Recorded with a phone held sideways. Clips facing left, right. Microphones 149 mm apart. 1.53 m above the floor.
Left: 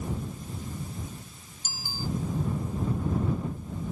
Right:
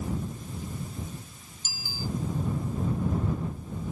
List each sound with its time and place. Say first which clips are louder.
1.6 s a bicycle bell: even; 50° left (ahead or behind)